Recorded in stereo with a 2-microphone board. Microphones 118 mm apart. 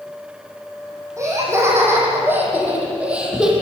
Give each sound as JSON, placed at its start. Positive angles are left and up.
{"t": 1.2, "sound": "laughter", "side_deg": -25, "distance_m": 10.0}